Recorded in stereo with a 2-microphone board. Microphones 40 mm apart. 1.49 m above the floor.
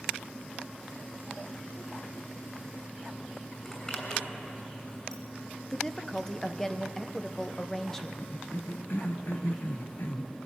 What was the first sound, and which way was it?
A zipper, 20° left (ahead or behind).